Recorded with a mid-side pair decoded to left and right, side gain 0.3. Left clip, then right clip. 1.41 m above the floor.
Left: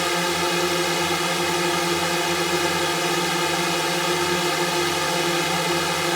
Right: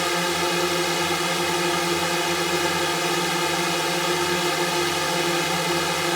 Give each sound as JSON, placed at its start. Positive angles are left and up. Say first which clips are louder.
{"t": 0.0, "sound": "a drone", "louder": "left 1 dB", "azimuth_deg": 15}